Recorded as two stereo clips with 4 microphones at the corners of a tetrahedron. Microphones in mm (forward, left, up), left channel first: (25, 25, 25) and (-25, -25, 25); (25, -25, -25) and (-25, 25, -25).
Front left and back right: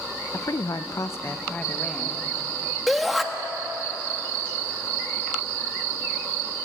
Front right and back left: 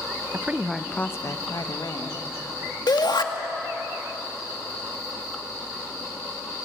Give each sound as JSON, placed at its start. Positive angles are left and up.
{"t": 0.3, "sound": "a woman speaking", "azimuth_deg": 80, "distance_m": 1.1}
{"t": 2.9, "sound": "a shout", "azimuth_deg": -45, "distance_m": 2.0}